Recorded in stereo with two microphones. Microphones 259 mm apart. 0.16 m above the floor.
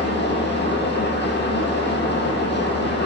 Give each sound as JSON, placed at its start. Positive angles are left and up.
{"t": 0.0, "sound": "an engine running", "side_deg": 45, "distance_m": 1.5}